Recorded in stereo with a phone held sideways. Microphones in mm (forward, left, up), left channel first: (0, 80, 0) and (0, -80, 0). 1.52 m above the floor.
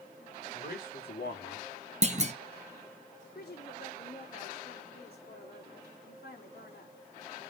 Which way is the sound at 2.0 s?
45° right (ahead or behind).